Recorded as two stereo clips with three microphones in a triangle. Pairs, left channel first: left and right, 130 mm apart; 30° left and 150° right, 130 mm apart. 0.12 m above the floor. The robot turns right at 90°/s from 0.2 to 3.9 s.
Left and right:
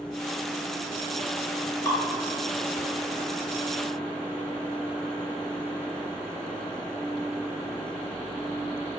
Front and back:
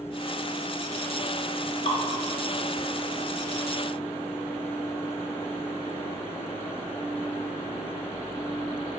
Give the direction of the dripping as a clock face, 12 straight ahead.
11 o'clock.